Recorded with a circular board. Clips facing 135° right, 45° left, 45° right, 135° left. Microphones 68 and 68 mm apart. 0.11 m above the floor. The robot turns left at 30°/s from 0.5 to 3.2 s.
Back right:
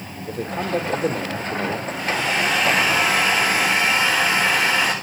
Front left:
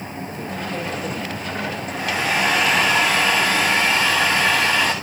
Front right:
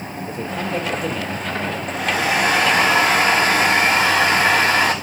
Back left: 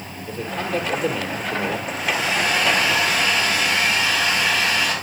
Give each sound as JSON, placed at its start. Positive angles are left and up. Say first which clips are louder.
{"t": 0.3, "sound": "a man speaking", "louder": "back right 7 dB, even", "azimuth_deg": -110, "distance_m": 3.0}
{"t": 1.9, "sound": "a hair dryer", "louder": "front left 4 dB, front right 3 dB", "azimuth_deg": -20, "distance_m": 7.5}